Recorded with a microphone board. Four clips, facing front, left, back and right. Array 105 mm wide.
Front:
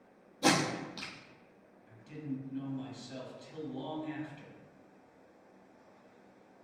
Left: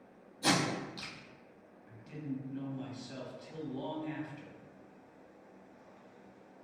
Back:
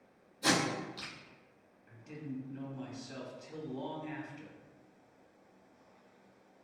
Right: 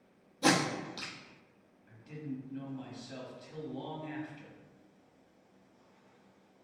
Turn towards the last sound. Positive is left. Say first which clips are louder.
# left 1 dB, front 3 dB
turn(degrees=175)